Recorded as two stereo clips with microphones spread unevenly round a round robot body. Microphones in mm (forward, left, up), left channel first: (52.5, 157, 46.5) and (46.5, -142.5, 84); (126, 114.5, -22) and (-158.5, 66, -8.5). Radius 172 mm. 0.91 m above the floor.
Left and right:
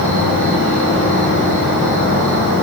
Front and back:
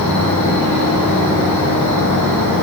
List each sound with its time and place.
0.0 s an insect: 35° left, 4.5 m